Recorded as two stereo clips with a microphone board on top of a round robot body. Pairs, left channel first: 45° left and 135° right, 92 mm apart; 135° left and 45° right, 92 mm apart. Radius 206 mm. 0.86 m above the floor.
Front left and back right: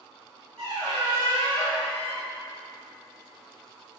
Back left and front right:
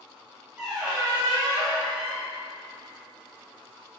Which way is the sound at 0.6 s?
130° right.